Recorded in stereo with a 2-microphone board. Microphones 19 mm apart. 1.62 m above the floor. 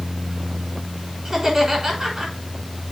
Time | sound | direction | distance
1.2 | laughter | 30° right (ahead or behind) | 5 m